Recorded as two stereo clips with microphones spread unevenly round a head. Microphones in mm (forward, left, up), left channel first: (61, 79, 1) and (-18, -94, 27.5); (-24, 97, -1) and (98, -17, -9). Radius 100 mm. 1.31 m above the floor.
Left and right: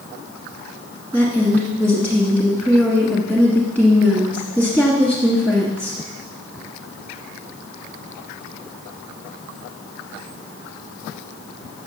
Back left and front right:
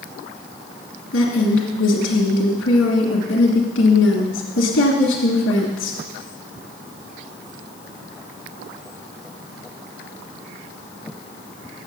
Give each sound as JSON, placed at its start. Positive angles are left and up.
{"t": 1.1, "sound": "a woman speaking", "azimuth_deg": 150, "distance_m": 1.6}